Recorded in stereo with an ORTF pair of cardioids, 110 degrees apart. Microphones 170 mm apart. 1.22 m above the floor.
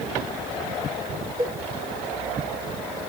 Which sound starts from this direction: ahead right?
A cowbell, at 1.4 s.